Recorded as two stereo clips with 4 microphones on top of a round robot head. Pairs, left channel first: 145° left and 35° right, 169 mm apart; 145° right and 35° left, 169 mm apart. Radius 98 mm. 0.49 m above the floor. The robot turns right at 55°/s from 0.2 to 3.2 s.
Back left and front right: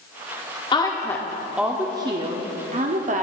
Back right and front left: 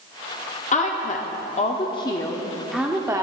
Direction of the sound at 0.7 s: 165° right.